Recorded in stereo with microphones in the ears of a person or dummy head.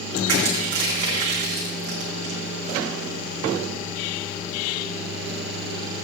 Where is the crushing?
45° right (ahead or behind), 2 m.